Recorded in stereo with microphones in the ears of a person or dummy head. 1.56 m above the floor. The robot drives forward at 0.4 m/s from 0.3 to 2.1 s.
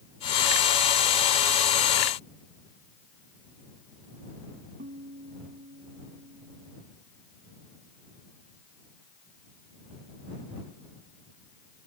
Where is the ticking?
I don't hear ticking.